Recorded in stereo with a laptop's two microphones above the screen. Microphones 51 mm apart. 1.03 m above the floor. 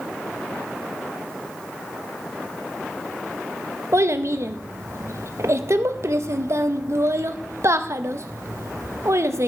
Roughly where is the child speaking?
Right.